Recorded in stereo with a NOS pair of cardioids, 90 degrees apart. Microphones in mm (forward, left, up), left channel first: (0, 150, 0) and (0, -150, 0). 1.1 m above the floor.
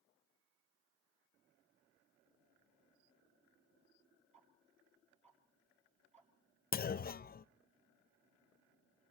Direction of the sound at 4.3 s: 20° right.